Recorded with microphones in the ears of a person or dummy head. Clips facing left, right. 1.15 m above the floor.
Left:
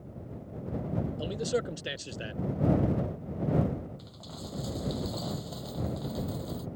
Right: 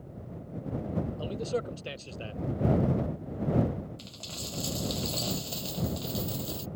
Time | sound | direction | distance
1.2 | a man speaking | 20° left (ahead or behind) | ?
4.0 | a dropped coin | 40° right (ahead or behind) | ?